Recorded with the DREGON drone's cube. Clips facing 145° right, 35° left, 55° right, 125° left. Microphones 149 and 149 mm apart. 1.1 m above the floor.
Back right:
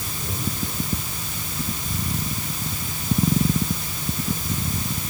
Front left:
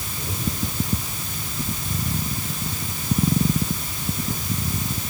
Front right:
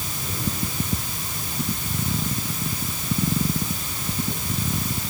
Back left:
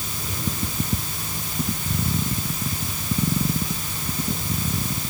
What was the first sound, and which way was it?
Only background noise.